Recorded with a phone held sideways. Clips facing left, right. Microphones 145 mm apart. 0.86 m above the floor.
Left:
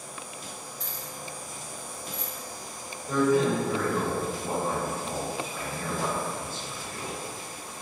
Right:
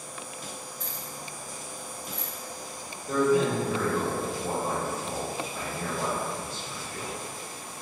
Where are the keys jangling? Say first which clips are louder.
Even; 45° right (ahead or behind), 1.0 m; by 2.3 s 85° right, 0.8 m.